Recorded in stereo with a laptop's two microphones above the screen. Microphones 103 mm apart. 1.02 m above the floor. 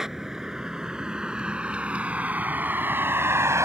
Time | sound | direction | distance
0.0 | a vehicle | 5° right (ahead or behind) | ?